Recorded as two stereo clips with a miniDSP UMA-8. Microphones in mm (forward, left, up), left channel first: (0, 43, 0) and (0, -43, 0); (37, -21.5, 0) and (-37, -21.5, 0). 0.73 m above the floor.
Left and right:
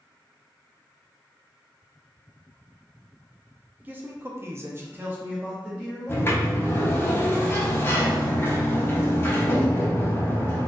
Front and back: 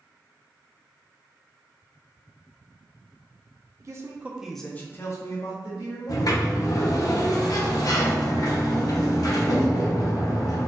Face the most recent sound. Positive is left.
turn(degrees=30)